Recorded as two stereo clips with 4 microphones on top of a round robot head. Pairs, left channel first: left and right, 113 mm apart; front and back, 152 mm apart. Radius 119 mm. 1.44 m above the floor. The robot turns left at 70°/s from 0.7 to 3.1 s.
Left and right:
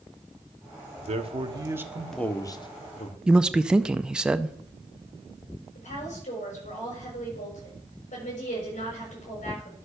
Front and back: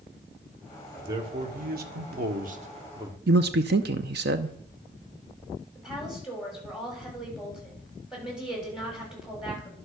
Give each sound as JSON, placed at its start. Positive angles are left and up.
{"t": 1.0, "sound": "a man speaking", "azimuth_deg": -110, "distance_m": 1.4}
{"t": 3.3, "sound": "a man speaking", "azimuth_deg": -170, "distance_m": 0.5}
{"t": 5.8, "sound": "a woman speaking", "azimuth_deg": 90, "distance_m": 6.5}